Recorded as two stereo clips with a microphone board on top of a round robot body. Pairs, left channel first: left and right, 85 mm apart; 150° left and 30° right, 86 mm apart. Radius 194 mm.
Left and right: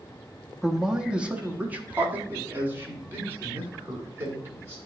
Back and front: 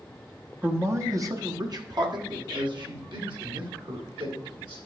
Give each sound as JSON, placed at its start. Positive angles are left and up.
{"t": 0.6, "sound": "a man speaking", "azimuth_deg": -5, "distance_m": 1.2}